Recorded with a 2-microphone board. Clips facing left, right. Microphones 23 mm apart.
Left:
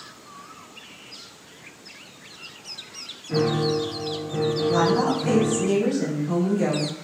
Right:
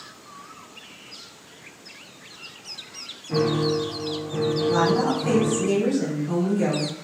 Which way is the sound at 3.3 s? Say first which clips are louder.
Even; 25° left (ahead or behind).